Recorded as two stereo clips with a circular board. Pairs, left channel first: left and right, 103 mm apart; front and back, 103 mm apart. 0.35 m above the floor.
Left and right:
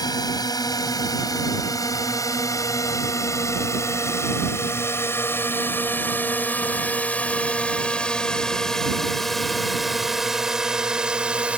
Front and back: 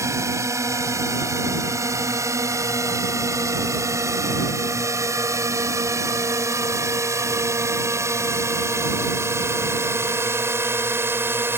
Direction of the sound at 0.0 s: 130° left.